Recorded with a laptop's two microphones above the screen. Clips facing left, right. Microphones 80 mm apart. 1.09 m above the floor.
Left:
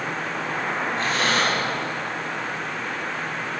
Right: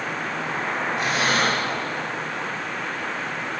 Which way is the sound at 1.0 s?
15° right (ahead or behind).